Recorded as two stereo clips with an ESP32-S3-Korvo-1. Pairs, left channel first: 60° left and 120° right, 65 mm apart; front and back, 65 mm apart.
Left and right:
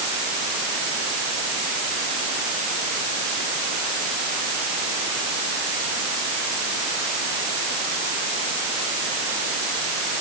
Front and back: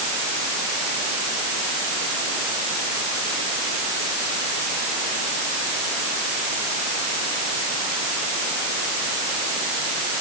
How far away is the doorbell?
I don't hear a doorbell.